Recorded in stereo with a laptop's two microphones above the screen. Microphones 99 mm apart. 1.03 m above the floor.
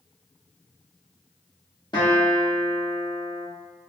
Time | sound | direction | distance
1.9 | a guitar | 50° left (ahead or behind) | 1.2 m